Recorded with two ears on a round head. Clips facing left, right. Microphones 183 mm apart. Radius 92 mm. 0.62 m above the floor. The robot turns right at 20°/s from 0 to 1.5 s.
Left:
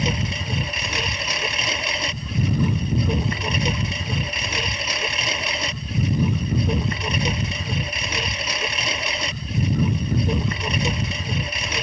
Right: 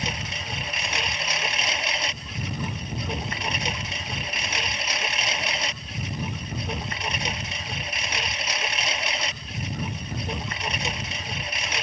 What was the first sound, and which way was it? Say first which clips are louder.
A lawn mower: left 8 dB; 65° left.